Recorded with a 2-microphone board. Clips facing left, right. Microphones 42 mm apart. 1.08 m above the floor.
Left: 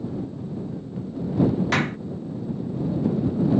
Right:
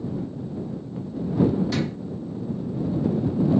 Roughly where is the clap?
Left.